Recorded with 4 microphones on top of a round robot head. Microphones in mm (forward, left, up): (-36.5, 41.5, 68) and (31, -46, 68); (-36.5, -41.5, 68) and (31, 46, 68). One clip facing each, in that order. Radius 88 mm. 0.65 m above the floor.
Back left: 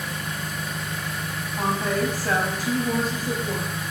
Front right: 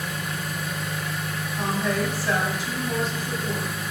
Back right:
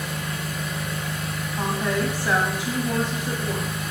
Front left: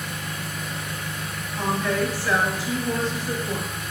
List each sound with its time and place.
0.0 s an engine running: 140° right, 1.8 m
1.6 s a woman speaking: 165° left, 1.4 m